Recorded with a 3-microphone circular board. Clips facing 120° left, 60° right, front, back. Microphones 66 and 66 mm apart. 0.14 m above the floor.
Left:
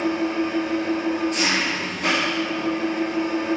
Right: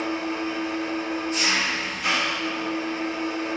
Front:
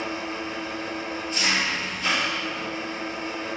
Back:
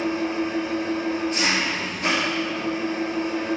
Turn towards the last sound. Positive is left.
turn(degrees=135)